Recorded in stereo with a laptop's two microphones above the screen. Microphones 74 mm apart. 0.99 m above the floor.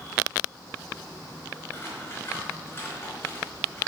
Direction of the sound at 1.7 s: 30° left (ahead or behind).